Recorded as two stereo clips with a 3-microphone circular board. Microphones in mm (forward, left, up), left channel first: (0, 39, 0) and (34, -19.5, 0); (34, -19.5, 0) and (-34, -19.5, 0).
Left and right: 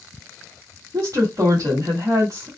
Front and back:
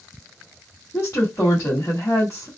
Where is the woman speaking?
40° right, 1.4 m.